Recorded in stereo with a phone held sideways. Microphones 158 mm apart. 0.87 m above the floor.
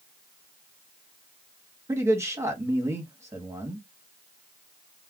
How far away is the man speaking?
About 1.0 m.